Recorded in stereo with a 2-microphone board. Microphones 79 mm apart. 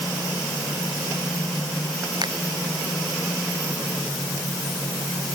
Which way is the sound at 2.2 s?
65° right (ahead or behind).